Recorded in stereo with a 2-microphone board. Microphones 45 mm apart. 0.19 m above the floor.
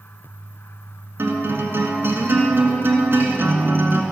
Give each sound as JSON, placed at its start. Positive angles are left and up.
{"t": 1.2, "sound": "a guitar", "side_deg": -55, "distance_m": 1.8}